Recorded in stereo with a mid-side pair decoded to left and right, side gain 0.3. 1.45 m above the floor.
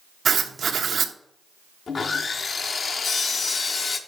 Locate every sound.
0.2 s writing: 70° right, 0.9 m
1.9 s sawing: 60° left, 0.7 m